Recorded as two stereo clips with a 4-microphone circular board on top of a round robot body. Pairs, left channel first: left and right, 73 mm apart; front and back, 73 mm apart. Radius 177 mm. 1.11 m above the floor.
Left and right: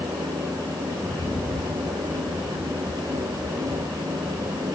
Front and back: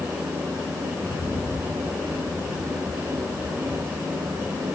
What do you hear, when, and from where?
0.9 s a rattle: 25° left, 4 m